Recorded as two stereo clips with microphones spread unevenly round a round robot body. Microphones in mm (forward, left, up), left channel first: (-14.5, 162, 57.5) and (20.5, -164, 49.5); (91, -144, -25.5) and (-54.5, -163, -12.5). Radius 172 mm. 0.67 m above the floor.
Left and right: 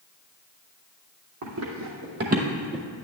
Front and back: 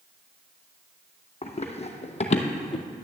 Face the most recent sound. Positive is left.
turn(degrees=15)